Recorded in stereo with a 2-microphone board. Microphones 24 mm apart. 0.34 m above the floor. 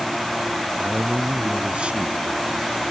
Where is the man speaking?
65° right (ahead or behind).